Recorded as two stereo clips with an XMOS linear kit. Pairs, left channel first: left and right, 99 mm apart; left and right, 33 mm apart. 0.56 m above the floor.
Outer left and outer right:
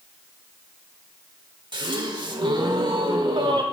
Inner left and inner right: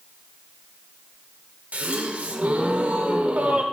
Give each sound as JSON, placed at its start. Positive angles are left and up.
{"t": 1.7, "sound": "a gasp", "side_deg": -50, "distance_m": 1.0}